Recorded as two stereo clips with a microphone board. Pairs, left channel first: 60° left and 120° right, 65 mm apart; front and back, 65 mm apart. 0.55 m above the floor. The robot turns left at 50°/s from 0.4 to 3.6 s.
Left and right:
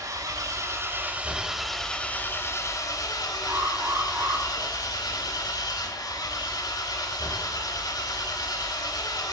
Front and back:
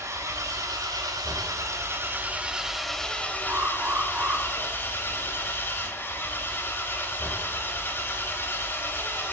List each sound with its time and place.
0.0 s an engine running: 145° right, 1.5 m; by 9.3 s 55° left, 1.5 m
3.5 s an alarm: 135° right, 2.0 m; by 4.5 s 140° right, 2.0 m